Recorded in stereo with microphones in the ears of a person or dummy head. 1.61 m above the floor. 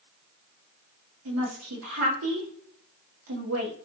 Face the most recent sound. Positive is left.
turn(degrees=-75)  # may be behind; listen again after turning